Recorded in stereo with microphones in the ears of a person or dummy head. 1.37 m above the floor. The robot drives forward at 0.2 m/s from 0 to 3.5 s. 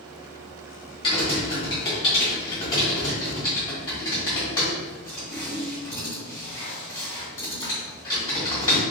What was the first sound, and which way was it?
Typing on a keyboard, 30° left (ahead or behind).